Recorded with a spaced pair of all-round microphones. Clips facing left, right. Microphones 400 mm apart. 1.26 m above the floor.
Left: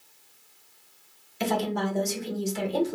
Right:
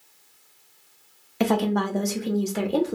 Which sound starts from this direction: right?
A woman speaking, at 1.4 s.